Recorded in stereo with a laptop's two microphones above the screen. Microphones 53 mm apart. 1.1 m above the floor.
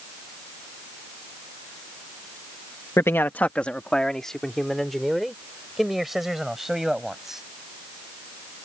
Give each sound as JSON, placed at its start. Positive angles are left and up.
{"t": 3.0, "sound": "a man speaking", "side_deg": 60}